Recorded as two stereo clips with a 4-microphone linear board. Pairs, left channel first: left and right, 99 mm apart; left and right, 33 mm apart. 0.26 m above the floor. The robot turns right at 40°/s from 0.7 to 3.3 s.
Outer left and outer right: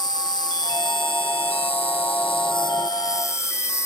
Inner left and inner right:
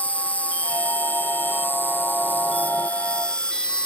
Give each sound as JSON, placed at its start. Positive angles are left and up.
{"t": 0.0, "sound": "an insect", "azimuth_deg": 45}